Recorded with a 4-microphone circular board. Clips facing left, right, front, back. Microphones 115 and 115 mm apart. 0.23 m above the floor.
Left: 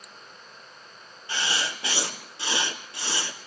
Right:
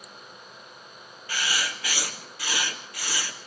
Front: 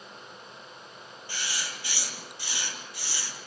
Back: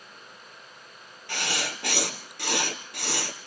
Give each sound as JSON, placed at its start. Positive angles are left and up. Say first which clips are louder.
{"t": 1.3, "sound": "writing", "louder": "left 1 dB, back 7 dB", "azimuth_deg": 155, "distance_m": 2.5}